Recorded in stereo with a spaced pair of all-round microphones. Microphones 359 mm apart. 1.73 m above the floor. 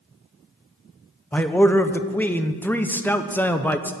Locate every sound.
1.3 s a man speaking: 5° left (ahead or behind), 0.7 m